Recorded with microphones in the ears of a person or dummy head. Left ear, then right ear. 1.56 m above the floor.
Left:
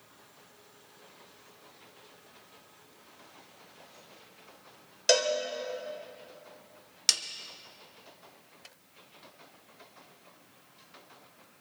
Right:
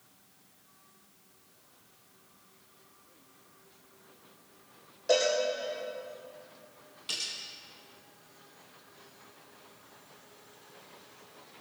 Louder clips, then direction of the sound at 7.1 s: Left 9 dB; 70° left (ahead or behind).